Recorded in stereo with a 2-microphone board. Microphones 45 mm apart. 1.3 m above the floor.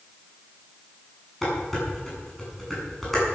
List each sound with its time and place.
1.4 s dishes clattering: 5° left (ahead or behind), 8.5 m